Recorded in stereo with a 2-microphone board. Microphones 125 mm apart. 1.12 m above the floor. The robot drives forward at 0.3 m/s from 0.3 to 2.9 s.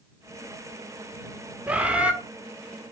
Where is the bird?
10° right (ahead or behind), 0.9 m.